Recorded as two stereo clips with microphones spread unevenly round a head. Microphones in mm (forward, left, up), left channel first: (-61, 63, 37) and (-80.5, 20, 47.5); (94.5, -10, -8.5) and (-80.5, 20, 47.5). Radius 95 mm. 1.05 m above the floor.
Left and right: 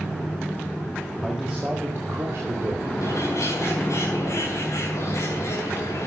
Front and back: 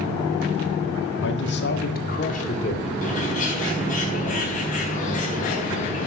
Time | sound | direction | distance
1.2 | a man speaking | 20° right | 1.7 m
3.0 | a bird | 40° left | 4.5 m